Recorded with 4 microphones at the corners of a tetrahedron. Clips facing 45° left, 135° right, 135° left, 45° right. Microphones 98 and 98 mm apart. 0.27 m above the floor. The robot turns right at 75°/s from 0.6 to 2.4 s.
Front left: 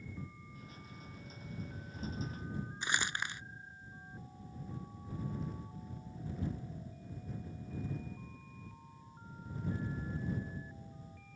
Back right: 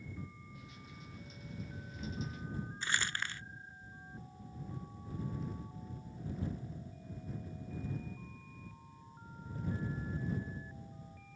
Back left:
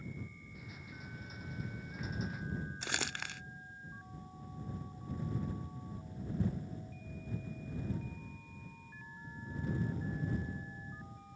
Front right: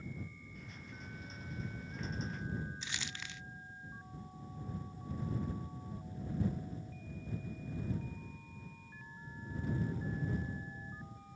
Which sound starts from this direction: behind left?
Crumpling, at 2.8 s.